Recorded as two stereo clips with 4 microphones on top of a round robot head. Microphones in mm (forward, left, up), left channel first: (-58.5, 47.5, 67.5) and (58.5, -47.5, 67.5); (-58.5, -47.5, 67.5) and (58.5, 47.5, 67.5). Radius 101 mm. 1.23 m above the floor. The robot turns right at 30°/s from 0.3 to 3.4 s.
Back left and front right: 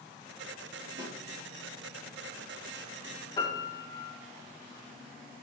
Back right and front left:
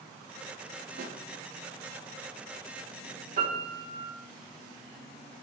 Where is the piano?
75° left, 3.5 m; by 4.1 s 80° left, 3.5 m.